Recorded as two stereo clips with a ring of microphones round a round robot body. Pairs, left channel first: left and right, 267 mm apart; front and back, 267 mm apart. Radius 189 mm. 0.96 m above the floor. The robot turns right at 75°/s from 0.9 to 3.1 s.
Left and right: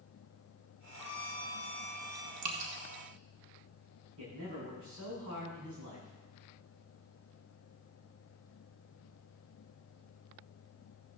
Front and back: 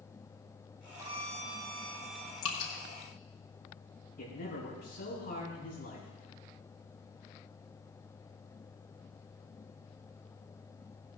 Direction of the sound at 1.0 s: 100° left.